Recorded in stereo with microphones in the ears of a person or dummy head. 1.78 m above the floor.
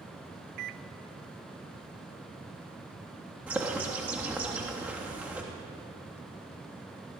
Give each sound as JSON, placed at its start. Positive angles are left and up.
{"t": 0.6, "sound": "a microwave", "side_deg": -55, "distance_m": 1.0}
{"t": 3.5, "sound": "a bird", "side_deg": -5, "distance_m": 3.0}